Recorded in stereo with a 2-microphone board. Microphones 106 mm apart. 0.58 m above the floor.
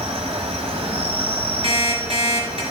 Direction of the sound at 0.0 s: 80° right.